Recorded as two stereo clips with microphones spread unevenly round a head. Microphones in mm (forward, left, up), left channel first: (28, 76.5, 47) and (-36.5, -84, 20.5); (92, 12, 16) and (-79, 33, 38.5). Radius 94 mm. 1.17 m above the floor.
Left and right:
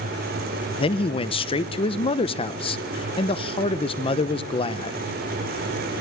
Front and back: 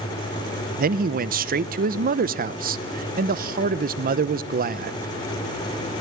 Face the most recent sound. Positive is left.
turn(degrees=130)